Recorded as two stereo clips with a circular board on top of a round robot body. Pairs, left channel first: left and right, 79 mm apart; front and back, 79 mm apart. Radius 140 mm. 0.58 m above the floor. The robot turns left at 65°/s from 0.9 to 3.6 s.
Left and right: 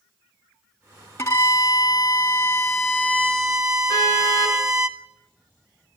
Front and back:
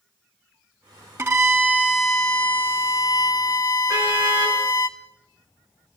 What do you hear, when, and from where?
1.2 s a violin: 140° left, 1.8 m; by 4.9 s 20° right, 1.8 m
3.9 s a car horn: 130° left, 7 m